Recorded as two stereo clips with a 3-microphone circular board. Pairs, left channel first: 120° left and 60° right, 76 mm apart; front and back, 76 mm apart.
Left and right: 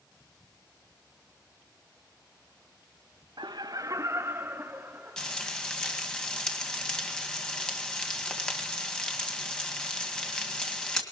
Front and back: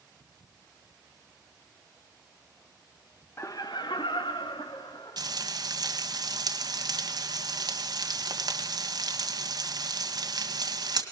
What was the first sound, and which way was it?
Laughter, 55° right.